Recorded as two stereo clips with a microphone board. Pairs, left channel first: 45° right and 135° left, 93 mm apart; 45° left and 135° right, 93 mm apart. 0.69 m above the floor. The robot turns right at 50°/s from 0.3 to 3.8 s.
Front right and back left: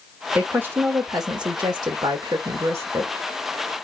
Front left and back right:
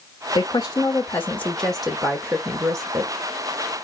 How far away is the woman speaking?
About 0.8 m.